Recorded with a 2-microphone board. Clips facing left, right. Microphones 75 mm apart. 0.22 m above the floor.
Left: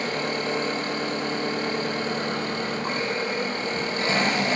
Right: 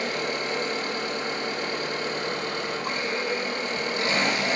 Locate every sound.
0.0 s an engine running: 35° left (ahead or behind), 5.5 m